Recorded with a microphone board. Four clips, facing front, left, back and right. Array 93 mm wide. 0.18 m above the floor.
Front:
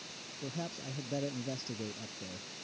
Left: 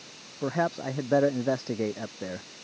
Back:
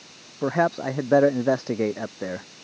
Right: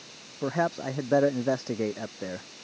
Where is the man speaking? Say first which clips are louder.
Even, back 19 dB; 175° right.